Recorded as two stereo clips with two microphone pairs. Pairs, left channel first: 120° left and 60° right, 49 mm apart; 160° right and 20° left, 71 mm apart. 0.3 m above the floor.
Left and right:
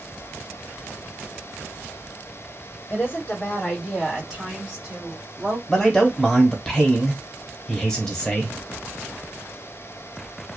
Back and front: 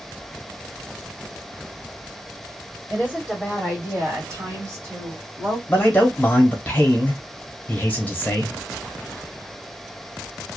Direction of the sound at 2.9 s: 90° left.